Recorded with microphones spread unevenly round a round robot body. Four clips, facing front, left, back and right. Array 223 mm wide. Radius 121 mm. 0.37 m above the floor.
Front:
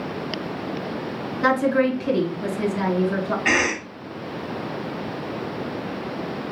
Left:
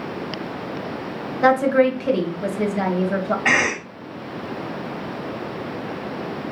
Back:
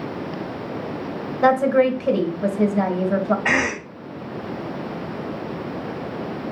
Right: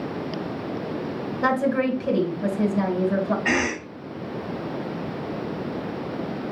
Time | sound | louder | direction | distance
1.4 | a woman speaking | left 6 dB, back 3 dB | 135° left | 2.5 m
3.5 | a cough | left 3 dB, even | 130° left | 2.5 m